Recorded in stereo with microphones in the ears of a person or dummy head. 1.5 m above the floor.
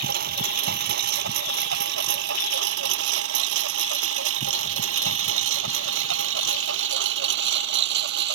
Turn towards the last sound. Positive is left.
turn(degrees=-70)  # may be behind; listen again after turning